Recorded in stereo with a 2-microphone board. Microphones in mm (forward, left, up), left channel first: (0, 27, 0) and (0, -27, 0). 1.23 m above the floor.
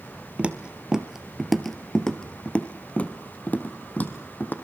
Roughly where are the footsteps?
Right.